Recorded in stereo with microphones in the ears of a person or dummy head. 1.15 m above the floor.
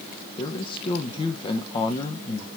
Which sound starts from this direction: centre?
A man speaking, at 0.4 s.